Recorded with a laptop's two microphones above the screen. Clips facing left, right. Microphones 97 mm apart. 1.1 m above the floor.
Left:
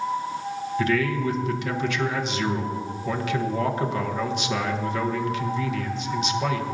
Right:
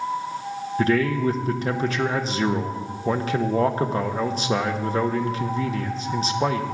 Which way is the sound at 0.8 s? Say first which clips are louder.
Right 3 dB; 35° right (ahead or behind).